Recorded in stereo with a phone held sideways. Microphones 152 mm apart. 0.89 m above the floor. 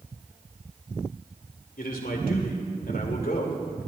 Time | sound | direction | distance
1.8 | a man speaking | 70° left (ahead or behind) | 2.5 m